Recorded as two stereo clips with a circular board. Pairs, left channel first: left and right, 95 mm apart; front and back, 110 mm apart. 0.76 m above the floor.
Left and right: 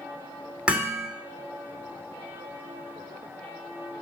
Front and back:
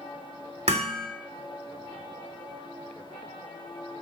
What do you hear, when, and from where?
0.7 s hammering: 165° right, 1.9 m